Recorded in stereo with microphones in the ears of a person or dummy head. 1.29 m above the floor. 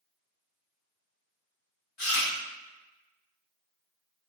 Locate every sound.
2.0 s chewing: 55° left (ahead or behind), 1.7 m